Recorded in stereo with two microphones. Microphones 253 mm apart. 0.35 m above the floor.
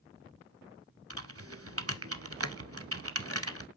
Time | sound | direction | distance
1.1 | typing on a keyboard | 60° right (ahead or behind) | 0.7 m